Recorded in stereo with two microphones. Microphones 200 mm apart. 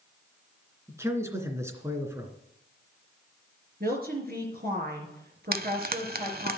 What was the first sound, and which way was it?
A man speaking, 15° right (ahead or behind).